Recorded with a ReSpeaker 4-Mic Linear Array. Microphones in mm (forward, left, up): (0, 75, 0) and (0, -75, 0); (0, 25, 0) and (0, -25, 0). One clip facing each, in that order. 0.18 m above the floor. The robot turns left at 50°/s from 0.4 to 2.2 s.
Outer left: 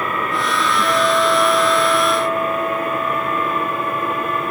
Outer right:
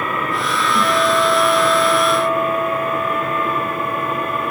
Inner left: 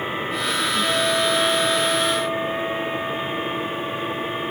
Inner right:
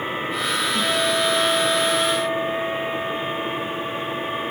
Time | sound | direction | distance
0.8 | a guitar | 45° right | 4 m